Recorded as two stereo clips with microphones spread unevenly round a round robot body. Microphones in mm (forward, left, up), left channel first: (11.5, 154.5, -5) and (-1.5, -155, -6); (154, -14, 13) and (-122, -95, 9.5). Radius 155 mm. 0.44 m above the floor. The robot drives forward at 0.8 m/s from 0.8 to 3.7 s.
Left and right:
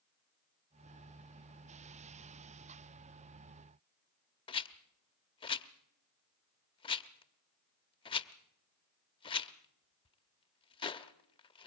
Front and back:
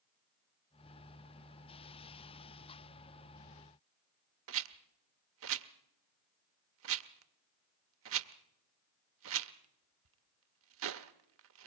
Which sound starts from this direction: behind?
A rattle, at 4.5 s.